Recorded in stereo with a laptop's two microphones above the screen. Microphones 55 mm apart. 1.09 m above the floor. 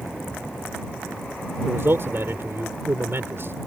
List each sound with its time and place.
1.6 s a man speaking: 50° right (ahead or behind)